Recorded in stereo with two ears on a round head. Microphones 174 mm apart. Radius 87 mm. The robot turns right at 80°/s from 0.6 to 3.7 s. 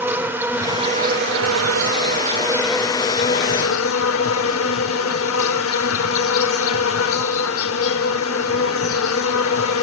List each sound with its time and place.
0.0 s an insect: 170° right, 1.0 m; by 9.8 s 80° left, 1.0 m